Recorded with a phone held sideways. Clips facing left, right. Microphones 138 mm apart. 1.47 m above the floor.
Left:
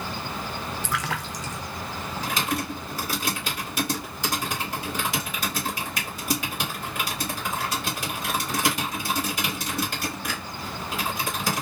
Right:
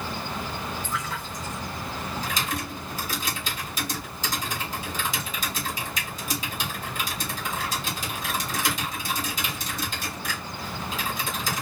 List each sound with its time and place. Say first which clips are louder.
0.8 s a splash: left 2 dB; 80° left, 0.6 m
2.2 s typing on a keyboard: left 7 dB; 65° left (ahead or behind), 2.5 m